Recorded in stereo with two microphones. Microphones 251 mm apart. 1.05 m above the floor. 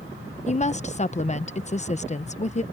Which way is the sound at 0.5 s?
30° left (ahead or behind).